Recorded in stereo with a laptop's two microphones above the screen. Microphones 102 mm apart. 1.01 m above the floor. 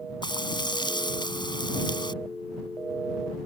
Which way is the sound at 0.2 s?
50° left (ahead or behind).